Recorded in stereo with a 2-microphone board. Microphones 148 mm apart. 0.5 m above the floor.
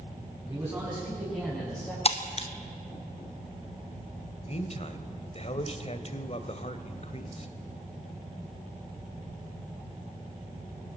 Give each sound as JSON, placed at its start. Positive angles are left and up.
{"t": 0.4, "sound": "a man speaking", "side_deg": -15, "distance_m": 5.5}
{"t": 2.0, "sound": "breaking glass", "side_deg": 45, "distance_m": 1.1}
{"t": 4.5, "sound": "a man speaking", "side_deg": 45, "distance_m": 1.8}